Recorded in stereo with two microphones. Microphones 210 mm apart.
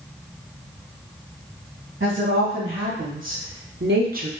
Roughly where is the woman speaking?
Right.